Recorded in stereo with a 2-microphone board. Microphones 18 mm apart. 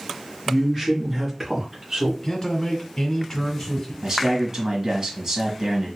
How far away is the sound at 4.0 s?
About 1.3 m.